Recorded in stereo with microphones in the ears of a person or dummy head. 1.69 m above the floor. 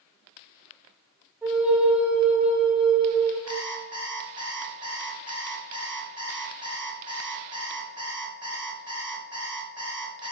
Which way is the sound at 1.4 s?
5° right (ahead or behind).